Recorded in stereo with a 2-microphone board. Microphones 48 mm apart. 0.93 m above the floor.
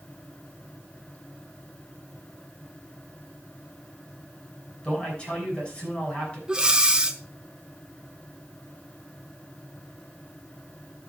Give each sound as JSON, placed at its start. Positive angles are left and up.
{"t": 4.8, "sound": "a man speaking", "side_deg": 25, "distance_m": 6.0}
{"t": 6.5, "sound": "breathing", "side_deg": -20, "distance_m": 0.7}